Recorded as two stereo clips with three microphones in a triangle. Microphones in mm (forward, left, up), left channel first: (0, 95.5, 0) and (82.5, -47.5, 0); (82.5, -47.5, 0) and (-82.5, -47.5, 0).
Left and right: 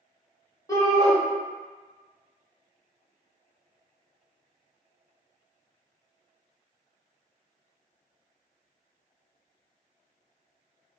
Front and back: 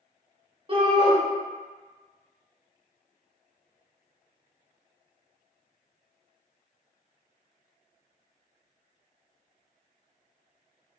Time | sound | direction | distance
0.7 | a shout | 170° left | 0.8 m